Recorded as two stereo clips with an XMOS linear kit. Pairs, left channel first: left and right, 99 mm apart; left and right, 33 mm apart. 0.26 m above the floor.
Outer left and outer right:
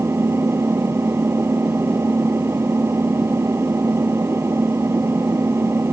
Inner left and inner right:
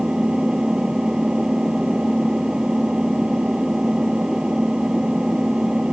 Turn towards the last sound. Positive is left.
turn(degrees=-25)  # may be behind; listen again after turning